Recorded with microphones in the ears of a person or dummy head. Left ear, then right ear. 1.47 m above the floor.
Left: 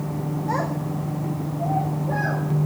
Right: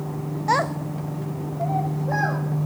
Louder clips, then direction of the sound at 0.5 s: Right 6 dB; 50° right (ahead or behind).